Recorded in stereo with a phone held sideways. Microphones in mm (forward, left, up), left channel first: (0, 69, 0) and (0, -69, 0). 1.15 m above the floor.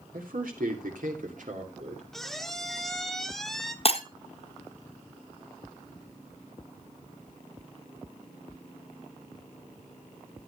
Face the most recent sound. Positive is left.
turn(degrees=45)  # may be behind; listen again after turning